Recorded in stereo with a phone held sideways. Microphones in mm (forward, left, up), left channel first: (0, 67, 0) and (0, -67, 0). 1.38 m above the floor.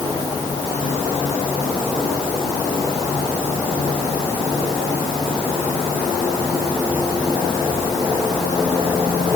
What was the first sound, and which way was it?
Only background noise.